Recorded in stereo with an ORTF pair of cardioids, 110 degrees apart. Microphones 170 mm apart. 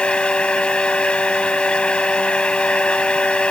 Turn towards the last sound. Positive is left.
turn(degrees=5)